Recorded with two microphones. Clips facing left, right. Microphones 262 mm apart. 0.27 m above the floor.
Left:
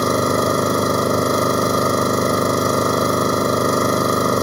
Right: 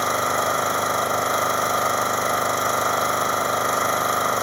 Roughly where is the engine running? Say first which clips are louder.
Left 9 dB; left.